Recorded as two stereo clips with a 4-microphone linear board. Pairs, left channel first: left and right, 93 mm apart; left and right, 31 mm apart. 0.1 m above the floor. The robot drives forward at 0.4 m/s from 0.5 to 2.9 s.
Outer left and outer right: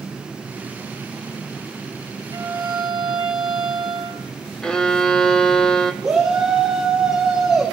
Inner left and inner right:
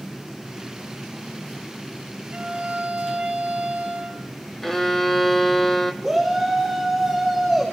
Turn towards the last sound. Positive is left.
turn(degrees=-5)  # may be behind; listen again after turning